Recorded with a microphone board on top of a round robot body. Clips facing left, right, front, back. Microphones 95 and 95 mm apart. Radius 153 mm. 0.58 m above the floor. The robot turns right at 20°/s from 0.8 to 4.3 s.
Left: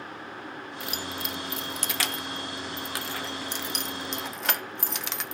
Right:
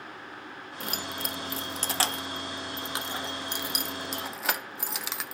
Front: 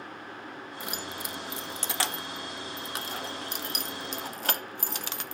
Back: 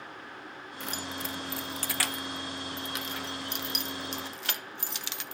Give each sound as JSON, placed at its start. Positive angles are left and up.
{"t": 0.8, "sound": "keys jangling", "azimuth_deg": -75, "distance_m": 0.8}